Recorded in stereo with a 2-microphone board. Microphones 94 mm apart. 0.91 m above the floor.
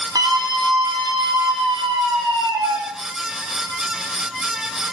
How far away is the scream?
About 2 m.